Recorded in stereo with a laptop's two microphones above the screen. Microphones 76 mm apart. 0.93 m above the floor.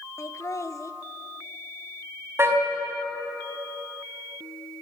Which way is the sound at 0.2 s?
40° left (ahead or behind).